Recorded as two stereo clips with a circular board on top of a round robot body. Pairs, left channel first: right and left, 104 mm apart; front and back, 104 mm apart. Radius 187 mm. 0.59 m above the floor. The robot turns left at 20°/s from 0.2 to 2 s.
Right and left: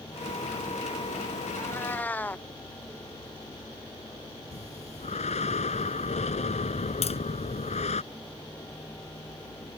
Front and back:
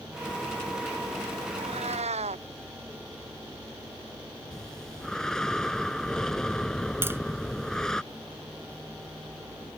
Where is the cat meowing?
155° right; by 2.5 s 165° right.